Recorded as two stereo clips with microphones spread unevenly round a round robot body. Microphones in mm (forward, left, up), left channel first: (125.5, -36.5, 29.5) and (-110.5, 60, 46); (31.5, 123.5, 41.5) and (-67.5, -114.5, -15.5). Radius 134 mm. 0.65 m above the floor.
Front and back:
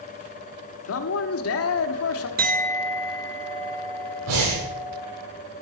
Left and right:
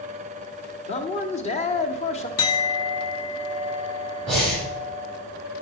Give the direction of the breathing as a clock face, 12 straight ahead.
7 o'clock.